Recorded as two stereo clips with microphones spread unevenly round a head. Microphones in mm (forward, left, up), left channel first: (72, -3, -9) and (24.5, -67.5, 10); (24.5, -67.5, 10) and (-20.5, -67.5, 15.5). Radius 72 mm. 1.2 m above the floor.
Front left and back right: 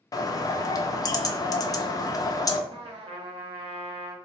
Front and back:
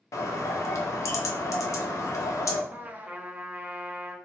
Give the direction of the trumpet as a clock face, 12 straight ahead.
4 o'clock.